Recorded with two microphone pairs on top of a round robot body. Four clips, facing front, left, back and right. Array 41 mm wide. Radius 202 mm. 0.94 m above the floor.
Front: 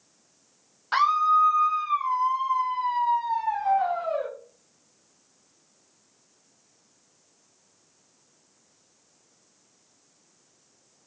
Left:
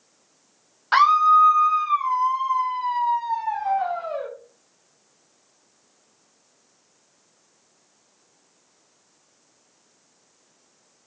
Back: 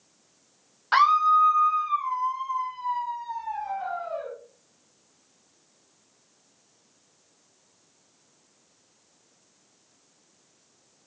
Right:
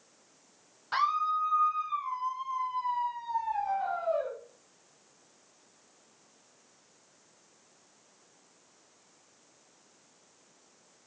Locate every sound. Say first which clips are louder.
0.9 s a scream: left 13 dB, back 2 dB; 105° left, 1.1 m; by 4.3 s 50° left, 2.5 m